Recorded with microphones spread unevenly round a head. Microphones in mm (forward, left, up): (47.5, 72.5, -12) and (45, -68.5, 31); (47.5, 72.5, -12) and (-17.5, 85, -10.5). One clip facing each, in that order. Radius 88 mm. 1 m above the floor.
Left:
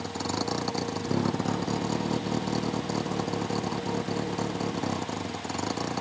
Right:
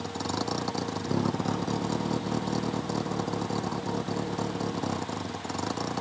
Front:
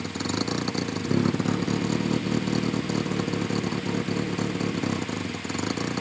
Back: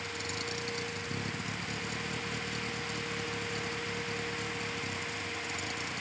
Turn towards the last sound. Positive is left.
turn(degrees=5)